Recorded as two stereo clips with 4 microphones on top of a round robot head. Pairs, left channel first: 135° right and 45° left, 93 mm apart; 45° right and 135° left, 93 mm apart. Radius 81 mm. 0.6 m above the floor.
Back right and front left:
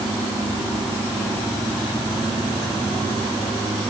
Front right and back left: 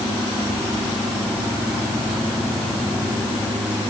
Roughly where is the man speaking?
I don't hear a man speaking.